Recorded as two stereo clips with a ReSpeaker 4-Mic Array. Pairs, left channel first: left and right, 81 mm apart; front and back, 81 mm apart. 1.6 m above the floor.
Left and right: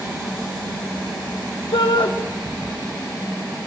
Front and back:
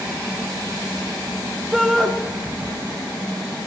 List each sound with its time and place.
1.7 s a shout: 90° left, 1.6 m